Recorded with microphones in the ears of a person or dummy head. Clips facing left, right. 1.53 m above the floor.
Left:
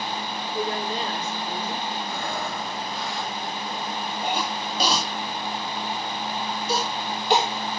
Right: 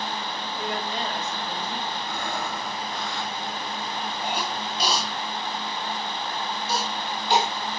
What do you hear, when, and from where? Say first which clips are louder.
0.5 s a woman speaking: left 4 dB; 35° left (ahead or behind), 5 m
2.0 s breathing: left 1 dB; 5° left (ahead or behind), 3.5 m
4.2 s a cough: left 3 dB; 50° left (ahead or behind), 1.3 m